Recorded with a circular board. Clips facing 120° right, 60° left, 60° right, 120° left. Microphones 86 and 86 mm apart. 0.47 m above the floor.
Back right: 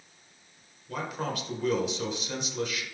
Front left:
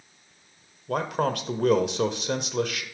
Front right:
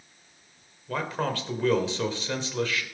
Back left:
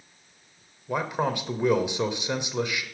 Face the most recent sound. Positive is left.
turn(degrees=50)